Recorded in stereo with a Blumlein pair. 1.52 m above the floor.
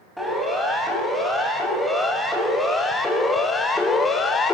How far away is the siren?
About 8 m.